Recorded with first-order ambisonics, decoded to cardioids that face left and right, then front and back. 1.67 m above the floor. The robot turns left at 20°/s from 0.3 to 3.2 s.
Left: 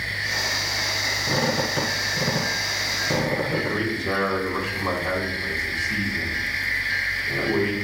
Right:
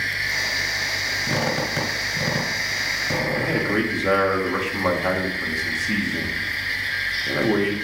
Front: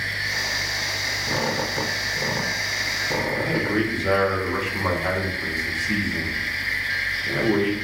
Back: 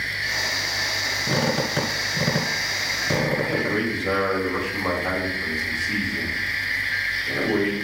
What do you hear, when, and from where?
1.3 s a squeak: 140° right, 1.7 m; by 3.8 s straight behind, 1.7 m
3.4 s a man speaking: 60° right, 2.5 m